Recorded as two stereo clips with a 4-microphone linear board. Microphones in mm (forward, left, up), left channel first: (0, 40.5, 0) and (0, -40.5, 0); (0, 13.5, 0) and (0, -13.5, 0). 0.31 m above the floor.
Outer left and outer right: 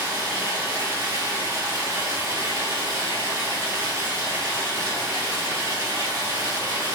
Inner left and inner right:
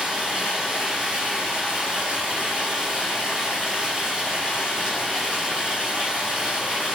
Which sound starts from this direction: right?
Running water, at 0.0 s.